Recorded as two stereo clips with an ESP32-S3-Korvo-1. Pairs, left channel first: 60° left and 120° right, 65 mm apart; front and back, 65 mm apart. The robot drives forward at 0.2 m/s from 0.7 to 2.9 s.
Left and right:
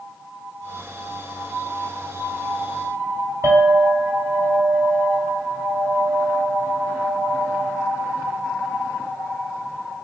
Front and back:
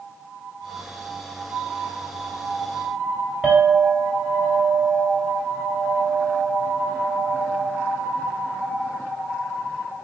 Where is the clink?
110° right, 1.6 m.